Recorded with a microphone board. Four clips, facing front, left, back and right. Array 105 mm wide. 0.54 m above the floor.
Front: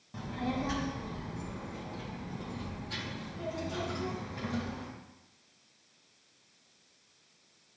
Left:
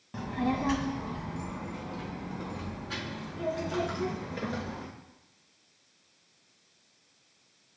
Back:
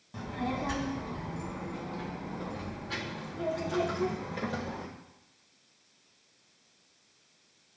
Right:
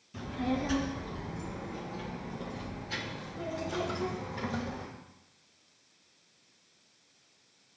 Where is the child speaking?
95° left, 2 m; by 4.9 s 130° left, 5 m.